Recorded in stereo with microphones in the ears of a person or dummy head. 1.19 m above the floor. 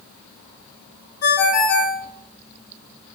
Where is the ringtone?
60° left (ahead or behind), 1.2 m.